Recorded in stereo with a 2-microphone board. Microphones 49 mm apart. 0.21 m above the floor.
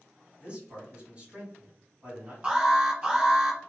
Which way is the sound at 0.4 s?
25° right (ahead or behind).